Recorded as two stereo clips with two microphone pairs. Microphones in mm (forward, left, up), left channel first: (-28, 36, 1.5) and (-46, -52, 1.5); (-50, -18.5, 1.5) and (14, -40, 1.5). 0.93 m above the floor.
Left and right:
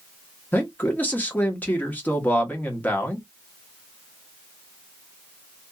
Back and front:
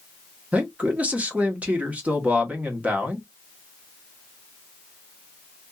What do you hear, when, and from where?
0.5 s a man speaking: 25° left, 1.0 m